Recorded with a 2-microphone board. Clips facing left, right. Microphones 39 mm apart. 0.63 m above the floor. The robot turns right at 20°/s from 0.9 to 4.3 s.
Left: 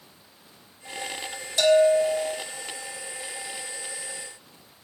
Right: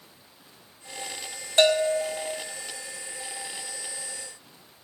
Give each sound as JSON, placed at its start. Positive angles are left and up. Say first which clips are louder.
{"t": 1.6, "sound": "a bell", "louder": "left 3 dB", "side_deg": -40, "distance_m": 1.6}